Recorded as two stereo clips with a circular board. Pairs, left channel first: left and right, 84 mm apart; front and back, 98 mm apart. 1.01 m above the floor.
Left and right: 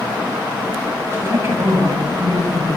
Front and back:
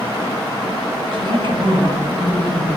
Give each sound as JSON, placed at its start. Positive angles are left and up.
{"t": 1.1, "sound": "a woman speaking", "azimuth_deg": -150, "distance_m": 8.0}